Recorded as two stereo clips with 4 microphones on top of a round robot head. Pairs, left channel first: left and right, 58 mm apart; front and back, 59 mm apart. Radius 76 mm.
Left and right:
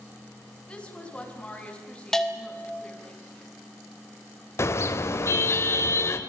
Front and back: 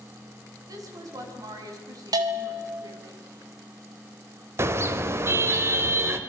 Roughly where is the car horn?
Behind left.